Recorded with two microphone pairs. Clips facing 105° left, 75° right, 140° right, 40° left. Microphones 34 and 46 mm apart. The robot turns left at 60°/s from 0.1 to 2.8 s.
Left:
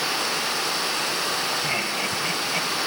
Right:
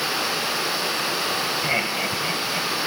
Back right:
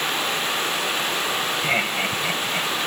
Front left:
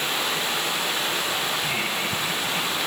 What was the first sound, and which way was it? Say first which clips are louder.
Laughter: right 2 dB, back right 4 dB; 120° right.